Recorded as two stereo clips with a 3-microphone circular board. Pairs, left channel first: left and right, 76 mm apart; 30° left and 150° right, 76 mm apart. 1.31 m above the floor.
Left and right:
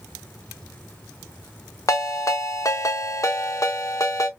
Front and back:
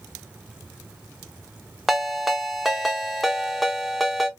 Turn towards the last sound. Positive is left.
turn(degrees=120)